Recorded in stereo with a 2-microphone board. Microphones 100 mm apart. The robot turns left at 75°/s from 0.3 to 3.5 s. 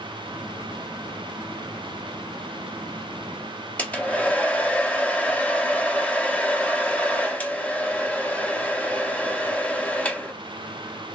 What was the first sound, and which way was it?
A hair dryer, 15° left (ahead or behind).